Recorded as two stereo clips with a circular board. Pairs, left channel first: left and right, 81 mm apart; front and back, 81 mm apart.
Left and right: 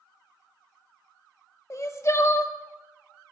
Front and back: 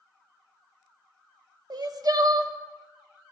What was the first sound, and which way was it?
Crying, 140° left.